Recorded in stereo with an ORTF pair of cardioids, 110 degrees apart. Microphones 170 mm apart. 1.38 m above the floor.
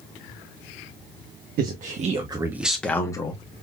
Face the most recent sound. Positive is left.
turn(degrees=25)